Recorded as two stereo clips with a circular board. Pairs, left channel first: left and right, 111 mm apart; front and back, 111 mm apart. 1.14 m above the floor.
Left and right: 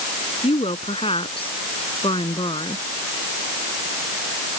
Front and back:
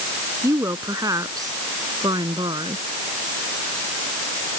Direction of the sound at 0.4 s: 120° left.